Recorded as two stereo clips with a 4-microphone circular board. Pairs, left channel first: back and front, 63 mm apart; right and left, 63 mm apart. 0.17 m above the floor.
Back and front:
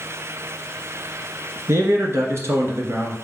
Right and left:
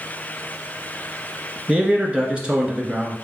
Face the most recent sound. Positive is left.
turn(degrees=20)